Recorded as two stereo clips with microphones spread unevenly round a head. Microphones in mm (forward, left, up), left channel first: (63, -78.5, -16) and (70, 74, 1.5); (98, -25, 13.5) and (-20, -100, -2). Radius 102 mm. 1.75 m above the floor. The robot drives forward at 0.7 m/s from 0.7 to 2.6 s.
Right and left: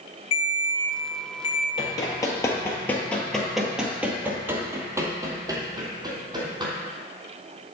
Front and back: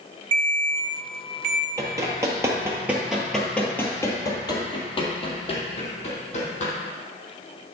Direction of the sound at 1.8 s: 105° right.